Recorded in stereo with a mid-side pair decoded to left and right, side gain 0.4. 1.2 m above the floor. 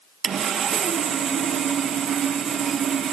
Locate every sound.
0.2 s sawing: 65° right, 1.5 m